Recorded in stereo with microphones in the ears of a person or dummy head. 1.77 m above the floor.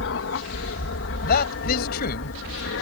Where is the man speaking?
50° left (ahead or behind).